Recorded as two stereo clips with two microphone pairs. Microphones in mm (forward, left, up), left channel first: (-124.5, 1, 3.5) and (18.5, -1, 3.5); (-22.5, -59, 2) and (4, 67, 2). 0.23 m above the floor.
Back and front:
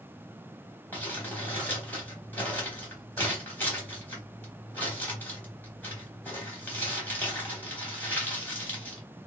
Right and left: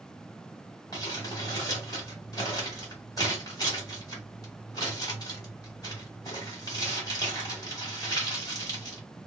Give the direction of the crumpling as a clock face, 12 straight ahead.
4 o'clock.